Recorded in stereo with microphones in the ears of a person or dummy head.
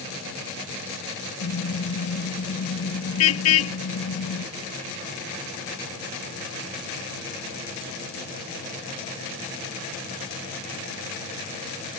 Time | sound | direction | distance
1.4 | a car horn | 75° left (ahead or behind) | ?